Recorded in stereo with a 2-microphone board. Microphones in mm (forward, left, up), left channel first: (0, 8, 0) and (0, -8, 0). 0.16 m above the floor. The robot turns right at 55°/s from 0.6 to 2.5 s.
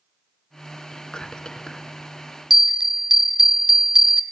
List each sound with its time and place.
0.9 s whispering: 70° left, 1.8 m; by 1.9 s 120° left, 1.8 m
2.5 s a bell: 20° right (ahead or behind), 0.9 m